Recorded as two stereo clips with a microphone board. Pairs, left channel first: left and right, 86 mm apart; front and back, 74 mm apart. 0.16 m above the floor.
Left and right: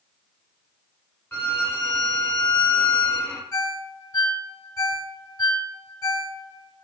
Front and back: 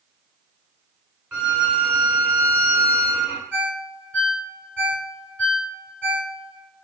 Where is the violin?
125° left, 0.6 m.